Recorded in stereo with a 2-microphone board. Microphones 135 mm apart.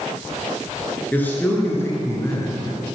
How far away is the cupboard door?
I don't hear a cupboard door.